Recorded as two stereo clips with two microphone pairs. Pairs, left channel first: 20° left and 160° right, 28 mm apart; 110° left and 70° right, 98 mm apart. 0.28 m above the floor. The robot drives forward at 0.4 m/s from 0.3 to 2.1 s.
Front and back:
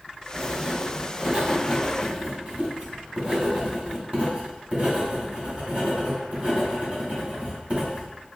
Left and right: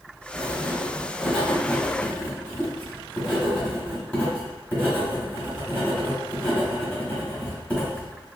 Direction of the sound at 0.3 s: 170° right.